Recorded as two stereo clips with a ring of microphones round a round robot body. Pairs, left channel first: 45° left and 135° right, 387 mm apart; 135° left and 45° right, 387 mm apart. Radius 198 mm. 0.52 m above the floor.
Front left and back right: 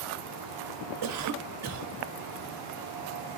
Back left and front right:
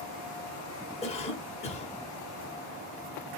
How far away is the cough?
About 1.2 m.